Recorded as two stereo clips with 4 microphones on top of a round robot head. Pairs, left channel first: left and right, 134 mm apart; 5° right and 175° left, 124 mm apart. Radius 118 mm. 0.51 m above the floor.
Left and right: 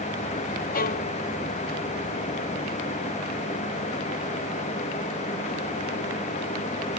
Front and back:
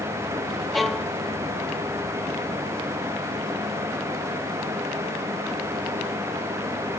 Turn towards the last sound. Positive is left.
turn(degrees=85)